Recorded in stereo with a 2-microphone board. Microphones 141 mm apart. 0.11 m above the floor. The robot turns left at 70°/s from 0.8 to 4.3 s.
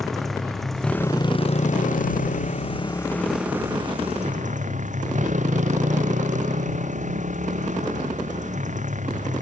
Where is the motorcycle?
Straight behind; by 9.4 s 65° right.